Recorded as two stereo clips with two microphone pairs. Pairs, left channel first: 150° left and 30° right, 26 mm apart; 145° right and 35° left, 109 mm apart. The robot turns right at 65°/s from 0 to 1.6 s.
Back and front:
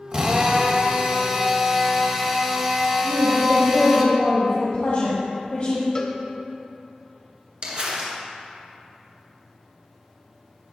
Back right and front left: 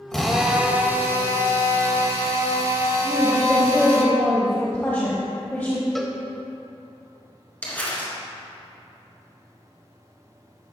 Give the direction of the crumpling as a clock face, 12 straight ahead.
2 o'clock.